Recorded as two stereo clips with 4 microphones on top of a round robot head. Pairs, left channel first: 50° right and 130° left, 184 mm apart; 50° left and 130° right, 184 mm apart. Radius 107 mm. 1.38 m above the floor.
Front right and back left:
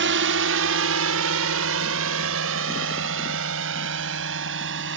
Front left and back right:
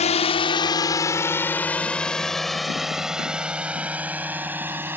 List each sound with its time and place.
0.0 s a drone: 105° left; by 5.0 s 150° left